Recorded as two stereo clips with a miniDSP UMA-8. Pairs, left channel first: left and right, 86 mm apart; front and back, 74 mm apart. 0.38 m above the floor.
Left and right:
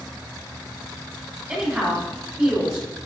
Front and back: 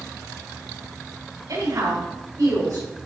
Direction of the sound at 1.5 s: 165° right.